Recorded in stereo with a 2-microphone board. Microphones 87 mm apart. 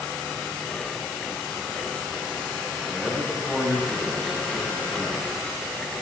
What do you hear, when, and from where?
2.9 s a man speaking: 5° left (ahead or behind), 8.5 m